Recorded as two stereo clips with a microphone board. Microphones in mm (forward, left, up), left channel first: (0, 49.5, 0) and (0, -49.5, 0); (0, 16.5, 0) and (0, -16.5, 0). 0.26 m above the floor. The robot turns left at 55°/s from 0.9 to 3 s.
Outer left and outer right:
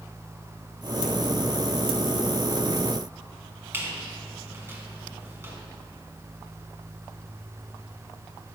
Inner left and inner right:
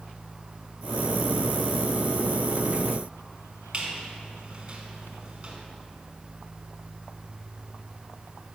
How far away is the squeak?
About 1.5 m.